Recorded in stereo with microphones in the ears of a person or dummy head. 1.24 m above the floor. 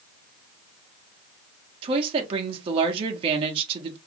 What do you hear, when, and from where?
1.8 s a woman speaking: 40° right (ahead or behind), 1.3 m